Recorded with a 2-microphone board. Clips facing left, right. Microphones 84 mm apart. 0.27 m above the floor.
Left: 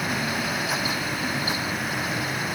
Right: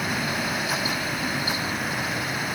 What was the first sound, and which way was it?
Only background noise.